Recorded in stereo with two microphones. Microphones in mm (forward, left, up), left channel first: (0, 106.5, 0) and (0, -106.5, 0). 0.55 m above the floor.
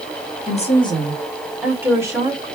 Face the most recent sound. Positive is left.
turn(degrees=-20)  # may be behind; listen again after turning